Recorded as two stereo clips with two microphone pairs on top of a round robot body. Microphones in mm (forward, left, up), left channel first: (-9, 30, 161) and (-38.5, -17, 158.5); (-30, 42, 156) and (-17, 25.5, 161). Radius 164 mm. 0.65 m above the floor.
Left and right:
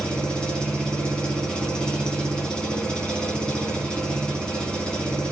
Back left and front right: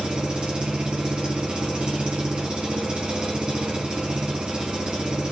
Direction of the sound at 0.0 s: 15° right.